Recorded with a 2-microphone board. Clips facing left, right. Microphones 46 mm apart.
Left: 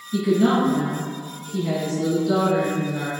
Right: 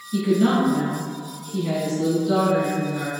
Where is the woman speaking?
5° right (ahead or behind), 1.2 m.